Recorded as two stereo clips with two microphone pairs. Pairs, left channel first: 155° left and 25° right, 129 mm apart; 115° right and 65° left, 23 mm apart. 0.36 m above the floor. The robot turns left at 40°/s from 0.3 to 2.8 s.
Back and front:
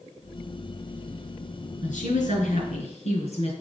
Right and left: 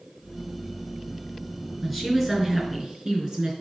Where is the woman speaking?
165° left, 4 m; by 3.5 s 130° left, 4 m.